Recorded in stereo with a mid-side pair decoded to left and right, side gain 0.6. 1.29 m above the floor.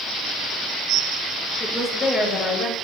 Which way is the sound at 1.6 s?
5° left.